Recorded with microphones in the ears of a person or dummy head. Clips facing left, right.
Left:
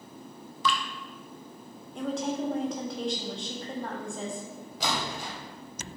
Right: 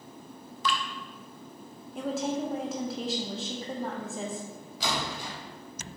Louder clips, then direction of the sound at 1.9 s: Even; centre (ahead or behind).